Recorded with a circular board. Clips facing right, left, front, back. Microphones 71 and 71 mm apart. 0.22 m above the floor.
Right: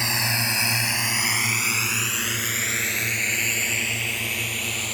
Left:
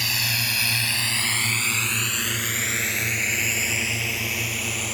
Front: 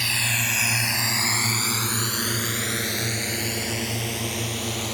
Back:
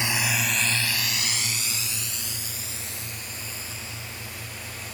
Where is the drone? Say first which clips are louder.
Right 2 dB, back 1 dB; 130° right; by 4.9 s 5° left.